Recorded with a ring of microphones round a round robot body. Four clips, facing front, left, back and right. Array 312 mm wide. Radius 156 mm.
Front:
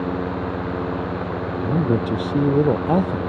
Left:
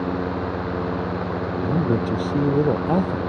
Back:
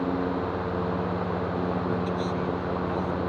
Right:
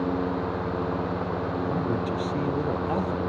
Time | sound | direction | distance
1.6 | a man speaking | 35° left | ?